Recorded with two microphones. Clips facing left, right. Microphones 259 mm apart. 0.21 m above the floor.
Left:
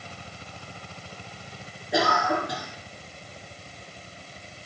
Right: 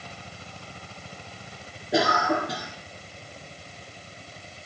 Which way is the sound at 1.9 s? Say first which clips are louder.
Right 1 dB; 20° right (ahead or behind).